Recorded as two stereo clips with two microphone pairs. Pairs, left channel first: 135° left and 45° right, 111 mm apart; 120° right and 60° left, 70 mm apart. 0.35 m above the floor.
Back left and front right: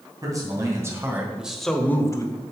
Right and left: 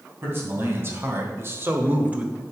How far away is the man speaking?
About 2.5 m.